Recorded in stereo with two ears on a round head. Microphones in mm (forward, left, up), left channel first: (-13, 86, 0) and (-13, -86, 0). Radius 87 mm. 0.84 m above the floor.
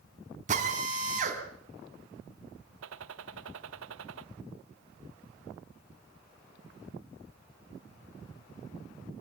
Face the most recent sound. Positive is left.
turn(degrees=-70)  # may be behind; listen again after turning